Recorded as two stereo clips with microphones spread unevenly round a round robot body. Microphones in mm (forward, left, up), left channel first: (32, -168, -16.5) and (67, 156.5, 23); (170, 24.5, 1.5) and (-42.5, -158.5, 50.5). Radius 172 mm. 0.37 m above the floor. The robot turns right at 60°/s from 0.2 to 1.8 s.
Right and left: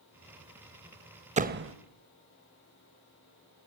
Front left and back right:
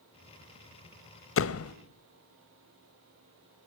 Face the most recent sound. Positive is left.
turn(degrees=40)